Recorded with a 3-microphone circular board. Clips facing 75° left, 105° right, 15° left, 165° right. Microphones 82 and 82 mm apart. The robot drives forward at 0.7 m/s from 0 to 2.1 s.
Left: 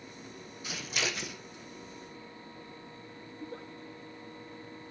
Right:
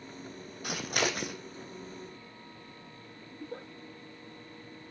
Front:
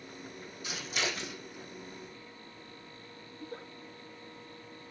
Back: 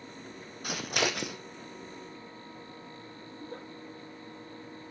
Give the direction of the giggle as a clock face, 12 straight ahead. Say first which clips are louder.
Right 1 dB, back 1 dB; 4 o'clock.